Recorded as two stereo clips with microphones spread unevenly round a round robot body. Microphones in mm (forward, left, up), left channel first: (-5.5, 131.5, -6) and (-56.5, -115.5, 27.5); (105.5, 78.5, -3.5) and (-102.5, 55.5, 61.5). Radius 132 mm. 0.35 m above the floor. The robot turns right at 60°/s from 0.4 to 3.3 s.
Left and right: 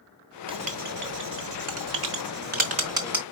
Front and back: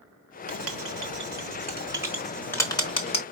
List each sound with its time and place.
0.5 s writing: 175° right, 1.1 m; by 3.2 s 10° right, 1.1 m